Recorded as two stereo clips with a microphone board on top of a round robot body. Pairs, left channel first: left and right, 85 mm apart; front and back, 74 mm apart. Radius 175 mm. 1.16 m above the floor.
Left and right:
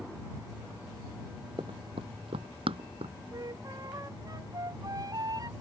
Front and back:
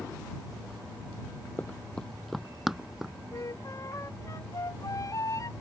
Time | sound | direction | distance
1.6 | running footsteps | 60° right | ?
3.3 | a flute | 45° right | ?